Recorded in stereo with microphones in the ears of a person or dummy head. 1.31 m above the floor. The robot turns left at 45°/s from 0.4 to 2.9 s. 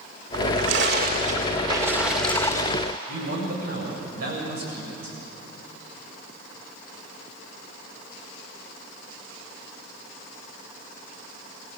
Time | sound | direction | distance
0.3 | a splash | 95° right | 1.9 m
3.1 | a man speaking | 65° right (ahead or behind) | 7.5 m